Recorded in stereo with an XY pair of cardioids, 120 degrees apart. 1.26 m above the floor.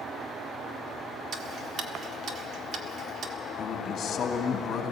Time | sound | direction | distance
1.3 | ticking | 50° right | 1.7 m
3.6 | a man speaking | 45° left | 2.5 m